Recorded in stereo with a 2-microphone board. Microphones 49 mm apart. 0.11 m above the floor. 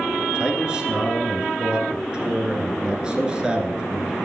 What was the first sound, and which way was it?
A man speaking, 15° right (ahead or behind).